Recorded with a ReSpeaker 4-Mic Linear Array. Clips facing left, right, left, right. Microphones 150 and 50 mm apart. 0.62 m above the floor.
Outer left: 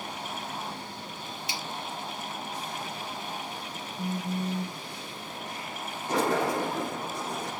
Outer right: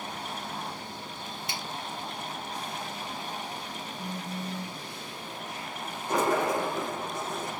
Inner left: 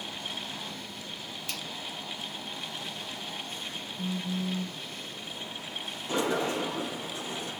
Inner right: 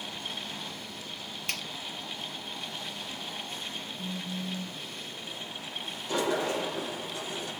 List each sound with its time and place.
1.5 s a finger snap: 55° right (ahead or behind), 1.0 m
4.0 s a phone buzzing: 50° left (ahead or behind), 0.7 m
6.1 s a sliding door: 30° left (ahead or behind), 4 m